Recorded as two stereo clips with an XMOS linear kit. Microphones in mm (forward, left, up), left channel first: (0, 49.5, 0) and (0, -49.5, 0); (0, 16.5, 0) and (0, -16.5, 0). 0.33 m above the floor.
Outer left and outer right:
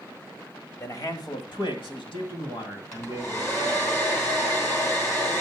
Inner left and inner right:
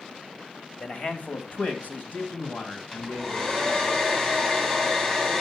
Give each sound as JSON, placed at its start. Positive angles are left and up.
{"t": 0.8, "sound": "a man speaking", "side_deg": 30, "distance_m": 1.3}
{"t": 2.9, "sound": "a hair dryer", "side_deg": 30, "distance_m": 3.5}